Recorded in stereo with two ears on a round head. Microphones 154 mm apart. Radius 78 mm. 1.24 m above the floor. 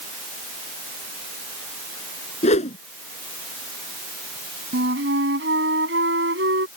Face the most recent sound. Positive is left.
turn(degrees=-65)  # may be behind; listen again after turning